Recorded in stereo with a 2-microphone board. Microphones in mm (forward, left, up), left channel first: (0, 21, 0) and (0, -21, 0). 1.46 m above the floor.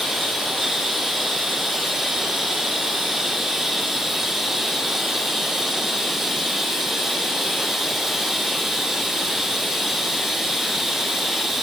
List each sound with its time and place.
0.0 s running water: 5° right (ahead or behind), 7 m